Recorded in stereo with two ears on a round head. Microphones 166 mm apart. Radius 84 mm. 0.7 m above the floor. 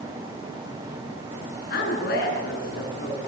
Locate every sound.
1.7 s a woman speaking: 55° left (ahead or behind), 9 m